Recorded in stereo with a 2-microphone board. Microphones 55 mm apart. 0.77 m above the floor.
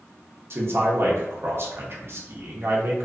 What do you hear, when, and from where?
0.5 s a man speaking: 50° right (ahead or behind), 0.6 m